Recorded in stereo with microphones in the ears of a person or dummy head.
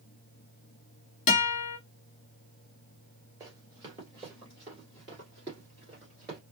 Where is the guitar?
35° left (ahead or behind), 1.1 m.